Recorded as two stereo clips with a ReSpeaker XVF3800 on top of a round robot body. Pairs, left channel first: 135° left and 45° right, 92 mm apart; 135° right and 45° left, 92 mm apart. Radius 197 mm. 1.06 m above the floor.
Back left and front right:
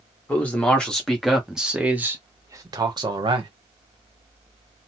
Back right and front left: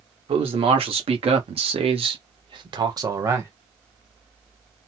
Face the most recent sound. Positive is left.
turn(degrees=-20)